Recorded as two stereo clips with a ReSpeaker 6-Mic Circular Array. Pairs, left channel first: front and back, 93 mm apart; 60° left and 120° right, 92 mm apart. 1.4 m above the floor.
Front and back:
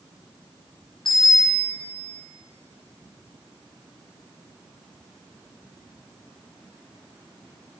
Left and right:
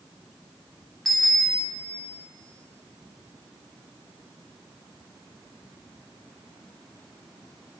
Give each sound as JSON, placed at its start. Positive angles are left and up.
{"t": 1.1, "sound": "a bicycle bell", "azimuth_deg": -30, "distance_m": 2.5}